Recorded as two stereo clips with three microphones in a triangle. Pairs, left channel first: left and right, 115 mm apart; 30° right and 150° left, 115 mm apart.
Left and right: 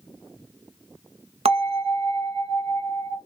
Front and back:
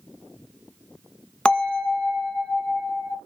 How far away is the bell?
About 0.6 m.